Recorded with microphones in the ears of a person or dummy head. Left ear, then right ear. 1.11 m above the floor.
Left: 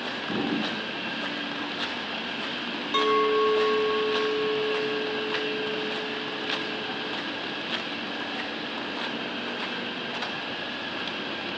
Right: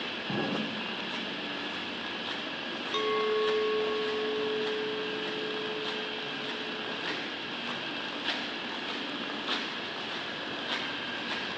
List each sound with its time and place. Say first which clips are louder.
0.3 s an explosion: left 4 dB; 60° right (ahead or behind), 4.5 m
2.9 s a clink: left 6 dB; 5° left (ahead or behind), 0.6 m